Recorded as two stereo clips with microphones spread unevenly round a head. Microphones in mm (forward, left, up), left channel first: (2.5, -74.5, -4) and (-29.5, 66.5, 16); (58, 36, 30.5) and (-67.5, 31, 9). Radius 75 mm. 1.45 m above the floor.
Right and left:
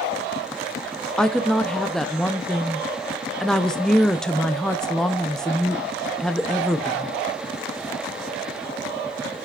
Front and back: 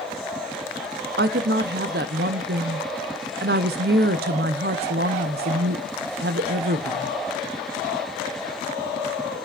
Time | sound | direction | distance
1.2 | a woman speaking | 165° right | 0.5 m